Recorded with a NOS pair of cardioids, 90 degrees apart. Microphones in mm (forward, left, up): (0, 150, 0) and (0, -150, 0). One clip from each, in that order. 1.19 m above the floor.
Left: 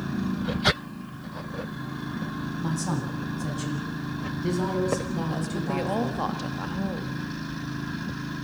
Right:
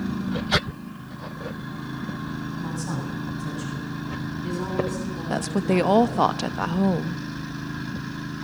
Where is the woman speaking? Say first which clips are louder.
Right 11 dB; 55° right, 1.4 m.